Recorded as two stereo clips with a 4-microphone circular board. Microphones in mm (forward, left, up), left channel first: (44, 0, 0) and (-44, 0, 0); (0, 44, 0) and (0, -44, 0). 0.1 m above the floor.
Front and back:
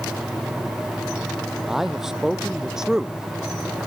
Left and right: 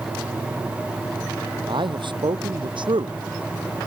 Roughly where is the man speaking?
Right.